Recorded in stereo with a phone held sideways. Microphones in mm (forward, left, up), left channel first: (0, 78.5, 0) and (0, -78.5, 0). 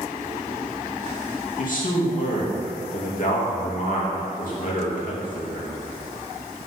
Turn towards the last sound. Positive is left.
turn(degrees=60)  # may be behind; listen again after turning